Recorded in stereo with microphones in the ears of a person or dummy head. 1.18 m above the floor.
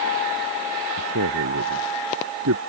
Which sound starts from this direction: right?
A man speaking, at 1.0 s.